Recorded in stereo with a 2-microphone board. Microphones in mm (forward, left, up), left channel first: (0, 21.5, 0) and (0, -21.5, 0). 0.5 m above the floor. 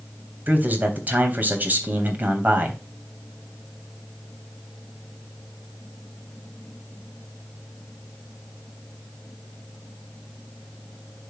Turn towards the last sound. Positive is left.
turn(degrees=-45)  # may be behind; listen again after turning